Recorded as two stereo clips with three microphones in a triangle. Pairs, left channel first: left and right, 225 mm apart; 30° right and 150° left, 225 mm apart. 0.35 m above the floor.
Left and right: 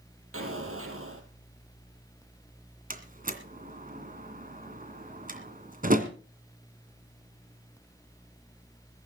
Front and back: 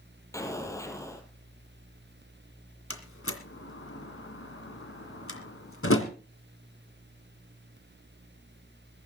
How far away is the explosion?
About 3 m.